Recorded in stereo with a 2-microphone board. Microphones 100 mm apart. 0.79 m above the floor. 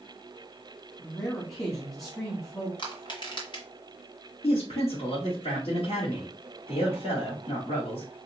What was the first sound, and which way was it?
A man speaking, 25° left (ahead or behind).